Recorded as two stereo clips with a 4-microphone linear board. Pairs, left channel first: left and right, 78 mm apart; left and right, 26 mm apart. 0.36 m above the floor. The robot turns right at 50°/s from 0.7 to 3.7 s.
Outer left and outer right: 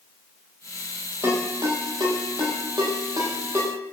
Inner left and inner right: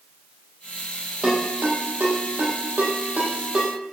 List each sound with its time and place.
1.2 s a ringtone: 35° right (ahead or behind), 7 m; by 3.8 s 25° right (ahead or behind), 7 m